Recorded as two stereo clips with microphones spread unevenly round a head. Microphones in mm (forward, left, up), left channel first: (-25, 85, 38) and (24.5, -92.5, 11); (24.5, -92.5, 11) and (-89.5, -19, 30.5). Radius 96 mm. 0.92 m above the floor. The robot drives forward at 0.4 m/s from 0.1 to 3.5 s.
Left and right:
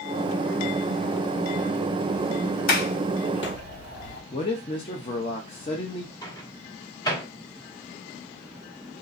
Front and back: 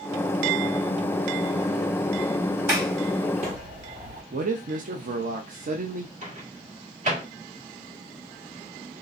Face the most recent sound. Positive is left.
turn(degrees=175)